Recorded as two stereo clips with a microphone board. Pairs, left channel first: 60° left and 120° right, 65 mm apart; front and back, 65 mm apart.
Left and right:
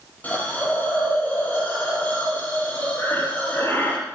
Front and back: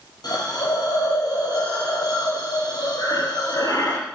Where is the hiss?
5° right, 6 m.